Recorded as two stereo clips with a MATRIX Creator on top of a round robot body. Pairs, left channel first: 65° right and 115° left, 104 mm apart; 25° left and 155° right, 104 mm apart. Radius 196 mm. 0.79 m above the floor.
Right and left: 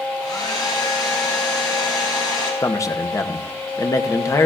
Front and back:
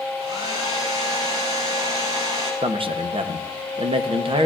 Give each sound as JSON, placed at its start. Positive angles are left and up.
{"t": 0.2, "sound": "a hair dryer", "azimuth_deg": -120, "distance_m": 4.5}
{"t": 2.6, "sound": "a man speaking", "azimuth_deg": -125, "distance_m": 0.9}